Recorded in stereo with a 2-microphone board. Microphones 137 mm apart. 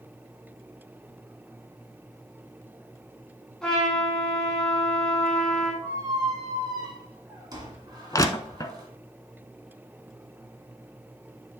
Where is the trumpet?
5° left (ahead or behind), 4 m.